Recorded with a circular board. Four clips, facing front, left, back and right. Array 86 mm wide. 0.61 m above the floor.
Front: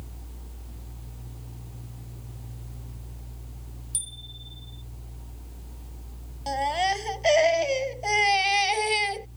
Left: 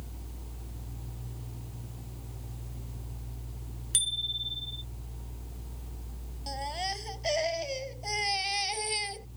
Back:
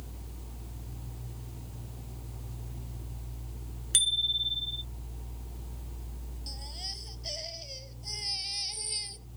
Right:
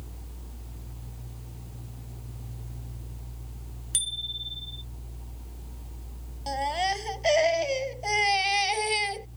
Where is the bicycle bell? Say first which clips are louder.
Left 1 dB, back 10 dB; straight behind.